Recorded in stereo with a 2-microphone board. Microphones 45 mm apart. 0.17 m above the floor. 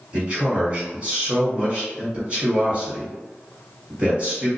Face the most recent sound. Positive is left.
turn(degrees=-25)  # may be behind; listen again after turning